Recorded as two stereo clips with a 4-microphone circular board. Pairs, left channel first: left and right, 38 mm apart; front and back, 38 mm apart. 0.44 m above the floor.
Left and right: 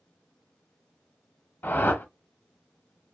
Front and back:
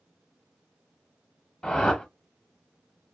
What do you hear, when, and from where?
1.6 s a whoosh: 65° left, 0.7 m